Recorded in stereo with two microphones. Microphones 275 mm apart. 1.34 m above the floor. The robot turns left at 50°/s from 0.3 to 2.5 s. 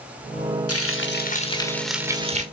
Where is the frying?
60° left, 1.5 m; by 2.4 s 30° right, 1.5 m.